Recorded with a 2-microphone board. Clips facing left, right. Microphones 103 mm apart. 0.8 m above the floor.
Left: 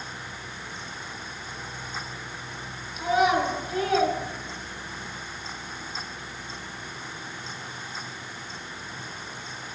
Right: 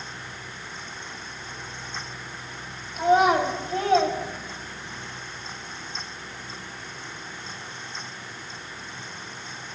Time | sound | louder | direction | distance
3.0 | a child speaking | right 3 dB | 45° right (ahead or behind) | 3 m